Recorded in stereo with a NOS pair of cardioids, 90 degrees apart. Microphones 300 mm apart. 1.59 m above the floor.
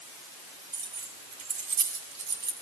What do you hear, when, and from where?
0.7 s keys jangling: 70° right, 3.5 m; by 2.5 s 80° right, 3 m